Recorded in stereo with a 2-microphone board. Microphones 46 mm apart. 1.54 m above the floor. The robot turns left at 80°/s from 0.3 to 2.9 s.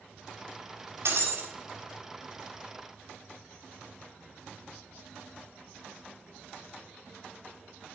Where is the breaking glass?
100° right, 4 m; by 1.5 s 135° right, 4 m.